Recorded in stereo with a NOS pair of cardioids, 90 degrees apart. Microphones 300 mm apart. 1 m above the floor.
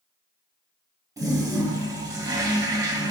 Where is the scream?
I don't hear a scream.